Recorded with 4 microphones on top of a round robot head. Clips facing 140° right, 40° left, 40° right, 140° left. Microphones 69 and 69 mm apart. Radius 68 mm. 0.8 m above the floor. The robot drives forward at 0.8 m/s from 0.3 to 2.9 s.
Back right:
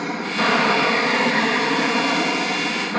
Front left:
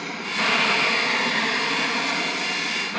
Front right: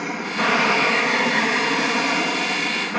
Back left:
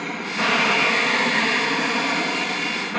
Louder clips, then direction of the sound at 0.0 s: Back right 5 dB, front right 2 dB; 110° right.